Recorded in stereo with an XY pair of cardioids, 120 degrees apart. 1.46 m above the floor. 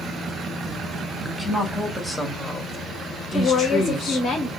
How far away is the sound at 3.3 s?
About 1.2 m.